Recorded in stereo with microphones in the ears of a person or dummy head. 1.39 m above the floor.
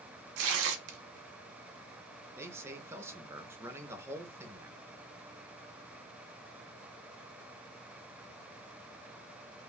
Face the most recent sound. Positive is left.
turn(degrees=-15)  # may be behind; listen again after turning